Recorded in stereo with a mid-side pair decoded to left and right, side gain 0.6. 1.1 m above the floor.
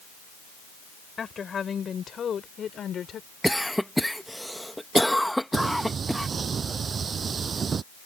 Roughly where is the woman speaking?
Ahead left.